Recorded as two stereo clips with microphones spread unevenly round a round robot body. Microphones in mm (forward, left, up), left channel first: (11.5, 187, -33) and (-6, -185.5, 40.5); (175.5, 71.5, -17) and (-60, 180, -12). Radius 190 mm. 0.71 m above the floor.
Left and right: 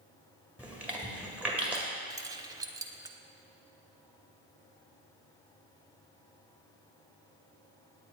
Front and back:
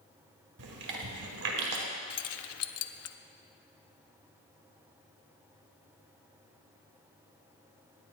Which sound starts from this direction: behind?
Chewing, at 0.6 s.